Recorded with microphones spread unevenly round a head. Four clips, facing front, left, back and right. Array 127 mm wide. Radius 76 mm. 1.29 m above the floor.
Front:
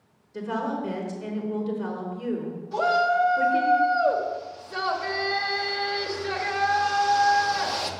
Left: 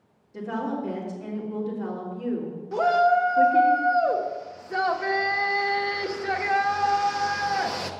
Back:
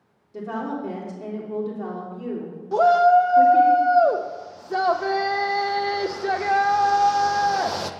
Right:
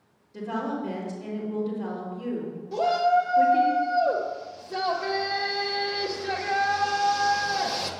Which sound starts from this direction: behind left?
A woman speaking, at 0.3 s.